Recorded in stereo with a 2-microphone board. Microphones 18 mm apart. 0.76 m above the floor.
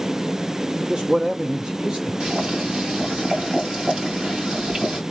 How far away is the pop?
No pop in this recording.